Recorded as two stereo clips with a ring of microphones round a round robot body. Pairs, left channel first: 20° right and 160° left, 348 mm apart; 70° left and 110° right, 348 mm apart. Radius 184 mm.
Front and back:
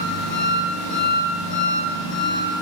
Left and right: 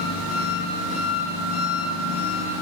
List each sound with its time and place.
0.0 s an engine running: 15° left, 1.7 m